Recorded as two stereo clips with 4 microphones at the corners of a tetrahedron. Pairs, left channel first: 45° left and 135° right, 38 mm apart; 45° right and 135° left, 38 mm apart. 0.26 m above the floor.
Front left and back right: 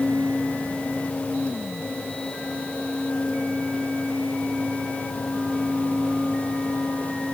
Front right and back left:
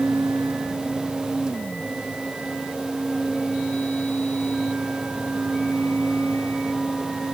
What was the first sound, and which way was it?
Only background noise.